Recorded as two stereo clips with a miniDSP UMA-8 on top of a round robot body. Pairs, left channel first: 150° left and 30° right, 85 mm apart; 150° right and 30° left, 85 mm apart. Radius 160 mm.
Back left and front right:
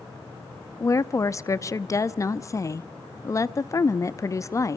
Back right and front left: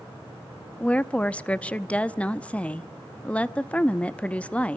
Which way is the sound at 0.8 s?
145° left.